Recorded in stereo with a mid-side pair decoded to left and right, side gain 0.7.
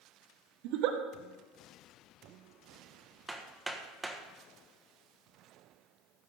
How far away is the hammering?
About 1.5 m.